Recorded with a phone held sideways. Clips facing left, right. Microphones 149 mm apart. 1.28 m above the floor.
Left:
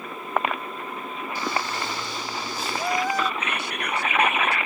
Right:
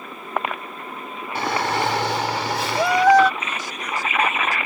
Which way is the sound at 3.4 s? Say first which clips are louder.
Left 1 dB; 65° left (ahead or behind).